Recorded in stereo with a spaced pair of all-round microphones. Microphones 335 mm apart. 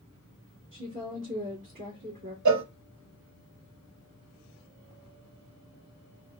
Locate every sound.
0.7 s a woman speaking: 65° right (ahead or behind), 1.8 m
2.5 s a cowbell: 60° right (ahead or behind), 0.5 m